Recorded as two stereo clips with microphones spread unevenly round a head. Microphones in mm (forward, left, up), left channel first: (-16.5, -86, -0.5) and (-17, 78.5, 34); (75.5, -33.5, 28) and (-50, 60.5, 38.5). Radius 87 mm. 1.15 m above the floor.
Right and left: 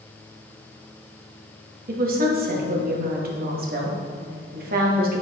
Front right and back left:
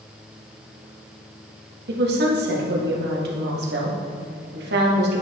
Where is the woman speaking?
125° left, 1.4 m.